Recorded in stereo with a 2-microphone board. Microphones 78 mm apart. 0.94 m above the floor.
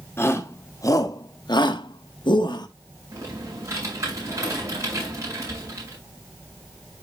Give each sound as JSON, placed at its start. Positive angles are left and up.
{"t": 0.2, "sound": "a shout", "side_deg": 30, "distance_m": 2.0}
{"t": 3.1, "sound": "typing on a keyboard", "side_deg": -40, "distance_m": 6.5}